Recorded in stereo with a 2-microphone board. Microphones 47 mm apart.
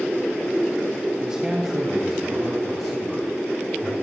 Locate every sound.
1.2 s a man speaking: 15° right (ahead or behind), 2.5 m; by 3.9 s 10° left (ahead or behind), 4 m